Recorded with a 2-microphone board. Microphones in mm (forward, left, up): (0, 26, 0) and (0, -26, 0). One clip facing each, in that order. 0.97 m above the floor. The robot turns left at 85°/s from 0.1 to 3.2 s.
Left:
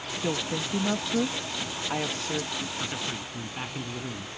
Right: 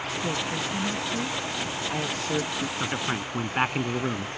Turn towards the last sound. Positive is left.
turn(degrees=-55)